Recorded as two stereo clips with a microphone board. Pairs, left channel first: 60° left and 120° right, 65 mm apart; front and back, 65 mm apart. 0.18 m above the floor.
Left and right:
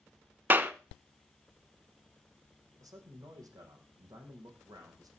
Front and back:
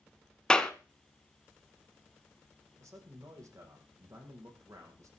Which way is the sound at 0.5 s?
70° right.